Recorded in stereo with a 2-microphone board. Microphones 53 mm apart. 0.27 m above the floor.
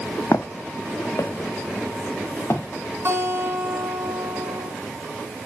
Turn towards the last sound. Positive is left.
turn(degrees=-50)  # may be behind; listen again after turning